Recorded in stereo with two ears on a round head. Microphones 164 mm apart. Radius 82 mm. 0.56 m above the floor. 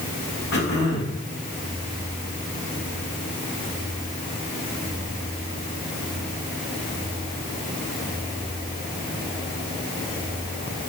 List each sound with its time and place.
0.5 s throat clearing: 60° left (ahead or behind), 4 m